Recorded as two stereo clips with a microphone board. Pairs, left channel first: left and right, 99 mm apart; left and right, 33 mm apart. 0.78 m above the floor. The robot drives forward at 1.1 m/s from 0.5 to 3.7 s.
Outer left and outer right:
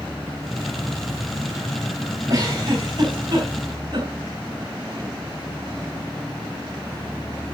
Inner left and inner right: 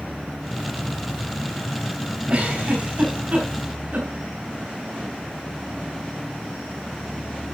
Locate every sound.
2.3 s a giggle: 40° right (ahead or behind), 5 m; by 4.1 s 55° right (ahead or behind), 4 m